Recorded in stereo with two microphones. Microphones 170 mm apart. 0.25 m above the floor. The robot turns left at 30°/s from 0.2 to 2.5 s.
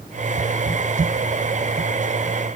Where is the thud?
I don't hear a thud.